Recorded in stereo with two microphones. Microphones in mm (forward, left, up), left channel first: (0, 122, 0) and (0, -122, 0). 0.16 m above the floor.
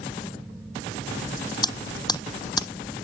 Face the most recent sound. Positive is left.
turn(degrees=15)  # may be behind; listen again after turning